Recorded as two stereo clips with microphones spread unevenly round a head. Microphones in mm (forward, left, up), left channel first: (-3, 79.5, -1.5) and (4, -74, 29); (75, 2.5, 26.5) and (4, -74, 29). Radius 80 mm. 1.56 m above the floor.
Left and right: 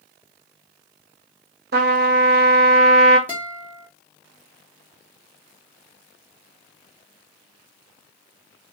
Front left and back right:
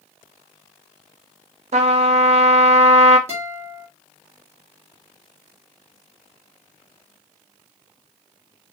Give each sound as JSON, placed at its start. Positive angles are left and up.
{"t": 1.7, "sound": "a trumpet", "azimuth_deg": -115, "distance_m": 0.6}
{"t": 3.3, "sound": "a guitar", "azimuth_deg": -155, "distance_m": 1.1}